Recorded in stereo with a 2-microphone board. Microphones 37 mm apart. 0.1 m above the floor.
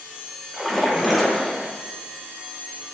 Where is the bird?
No bird in this recording.